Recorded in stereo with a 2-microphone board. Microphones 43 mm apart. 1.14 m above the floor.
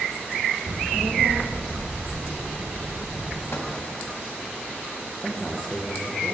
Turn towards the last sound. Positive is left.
turn(degrees=15)  # may be behind; listen again after turning